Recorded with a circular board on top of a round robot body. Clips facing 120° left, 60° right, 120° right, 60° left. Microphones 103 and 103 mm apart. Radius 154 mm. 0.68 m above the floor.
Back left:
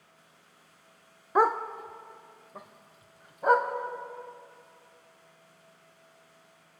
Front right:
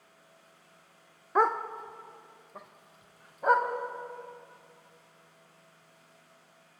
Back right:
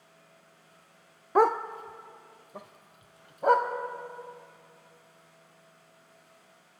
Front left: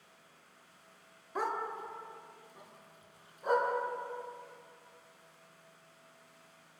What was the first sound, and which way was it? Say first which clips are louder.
A dog barking: back left 2 dB, back right 12 dB; 155° right.